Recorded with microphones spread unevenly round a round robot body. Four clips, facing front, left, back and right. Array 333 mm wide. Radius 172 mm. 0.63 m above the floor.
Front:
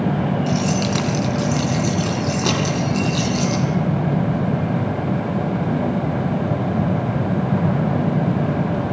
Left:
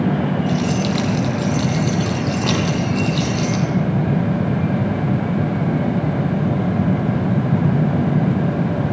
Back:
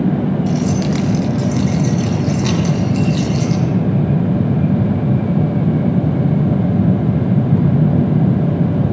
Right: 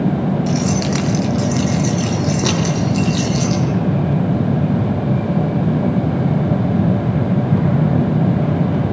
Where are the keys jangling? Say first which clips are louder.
Right 1 dB, back 3 dB; 120° right, 6 m; by 3.6 s 125° right, 10 m.